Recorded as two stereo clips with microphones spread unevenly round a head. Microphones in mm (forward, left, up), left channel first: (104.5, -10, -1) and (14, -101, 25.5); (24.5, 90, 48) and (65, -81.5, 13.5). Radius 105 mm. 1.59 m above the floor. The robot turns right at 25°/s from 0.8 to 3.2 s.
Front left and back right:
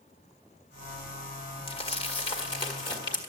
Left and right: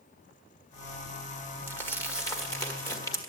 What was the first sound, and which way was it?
Crumpling, 60° left.